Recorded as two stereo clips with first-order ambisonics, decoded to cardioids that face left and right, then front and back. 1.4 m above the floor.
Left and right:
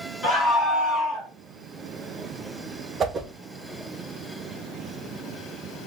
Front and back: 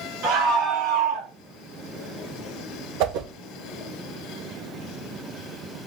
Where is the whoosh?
155° right, 0.6 m.